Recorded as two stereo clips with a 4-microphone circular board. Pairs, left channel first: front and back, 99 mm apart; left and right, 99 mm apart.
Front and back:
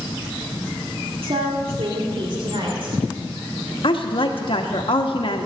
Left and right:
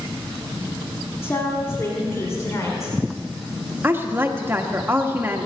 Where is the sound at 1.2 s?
155° left, 2.0 m; by 3.0 s 150° left, 3 m.